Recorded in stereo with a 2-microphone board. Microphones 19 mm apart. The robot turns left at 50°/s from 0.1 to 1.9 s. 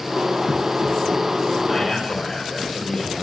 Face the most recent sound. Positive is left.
turn(degrees=5)  # may be behind; listen again after turning